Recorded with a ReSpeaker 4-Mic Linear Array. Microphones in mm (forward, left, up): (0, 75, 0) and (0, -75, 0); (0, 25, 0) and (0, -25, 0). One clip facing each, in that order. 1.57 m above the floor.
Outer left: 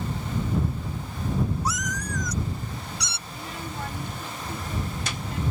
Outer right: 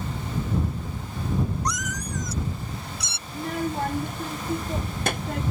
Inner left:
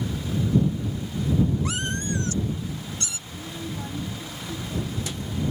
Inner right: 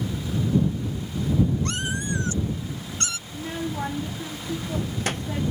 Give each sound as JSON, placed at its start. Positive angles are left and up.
{"t": 1.6, "sound": "a cat meowing", "side_deg": 5}
{"t": 3.3, "sound": "a child speaking", "side_deg": -55}